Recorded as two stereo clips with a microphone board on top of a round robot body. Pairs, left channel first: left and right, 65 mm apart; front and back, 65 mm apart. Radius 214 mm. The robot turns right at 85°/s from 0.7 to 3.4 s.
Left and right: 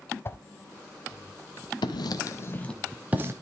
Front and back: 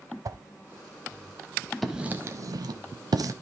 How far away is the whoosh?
About 0.5 m.